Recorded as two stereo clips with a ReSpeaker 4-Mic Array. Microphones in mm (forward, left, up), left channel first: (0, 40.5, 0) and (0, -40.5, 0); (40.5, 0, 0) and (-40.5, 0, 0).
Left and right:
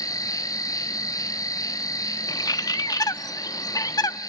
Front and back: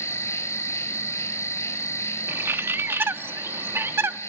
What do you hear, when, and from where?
0.0 s an insect: 50° left, 1.7 m
2.3 s a bird: 120° left, 0.6 m